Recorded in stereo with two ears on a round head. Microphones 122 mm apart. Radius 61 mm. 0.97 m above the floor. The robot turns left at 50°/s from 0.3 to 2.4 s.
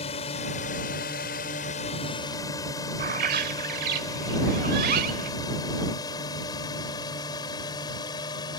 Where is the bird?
70° right (ahead or behind).